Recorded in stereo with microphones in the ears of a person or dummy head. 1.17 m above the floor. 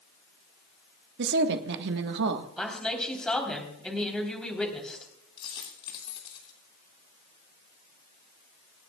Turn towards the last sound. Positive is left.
turn(degrees=30)  # may be behind; listen again after turning